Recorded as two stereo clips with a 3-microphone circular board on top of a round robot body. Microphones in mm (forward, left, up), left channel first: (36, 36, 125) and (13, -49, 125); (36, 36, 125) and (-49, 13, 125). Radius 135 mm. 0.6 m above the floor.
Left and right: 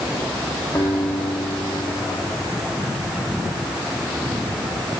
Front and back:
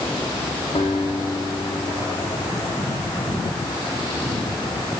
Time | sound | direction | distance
0.8 | a guitar | 5° left | 8.5 m